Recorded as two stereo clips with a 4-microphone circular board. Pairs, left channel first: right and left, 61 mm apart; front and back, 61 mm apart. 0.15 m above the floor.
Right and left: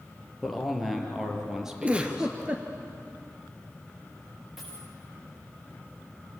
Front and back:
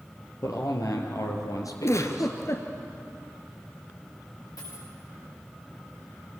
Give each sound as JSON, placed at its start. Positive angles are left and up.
{"t": 0.4, "sound": "a man speaking", "azimuth_deg": -5, "distance_m": 3.5}
{"t": 1.8, "sound": "a giggle", "azimuth_deg": 20, "distance_m": 2.5}
{"t": 4.6, "sound": "a dropped coin", "azimuth_deg": 0, "distance_m": 8.5}